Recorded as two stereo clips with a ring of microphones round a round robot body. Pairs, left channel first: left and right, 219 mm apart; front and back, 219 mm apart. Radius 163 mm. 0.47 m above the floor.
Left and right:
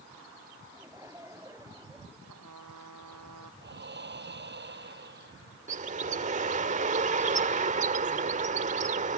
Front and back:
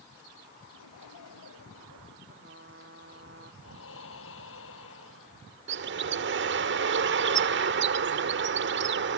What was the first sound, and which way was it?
Laughter, 15° right.